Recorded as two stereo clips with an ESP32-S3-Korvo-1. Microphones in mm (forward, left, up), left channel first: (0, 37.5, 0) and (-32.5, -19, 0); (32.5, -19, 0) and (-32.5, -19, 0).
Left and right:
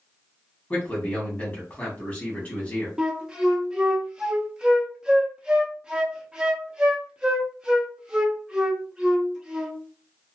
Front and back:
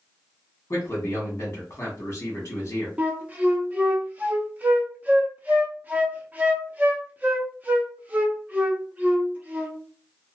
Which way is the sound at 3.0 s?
175° right.